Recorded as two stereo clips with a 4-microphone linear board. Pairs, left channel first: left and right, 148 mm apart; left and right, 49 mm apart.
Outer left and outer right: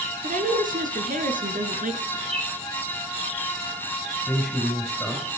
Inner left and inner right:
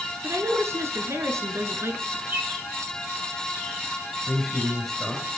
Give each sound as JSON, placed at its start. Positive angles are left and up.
{"t": 0.2, "sound": "a woman speaking", "side_deg": -65, "distance_m": 4.0}
{"t": 2.3, "sound": "a bird", "side_deg": -40, "distance_m": 5.0}
{"t": 4.3, "sound": "a man speaking", "side_deg": -5, "distance_m": 5.0}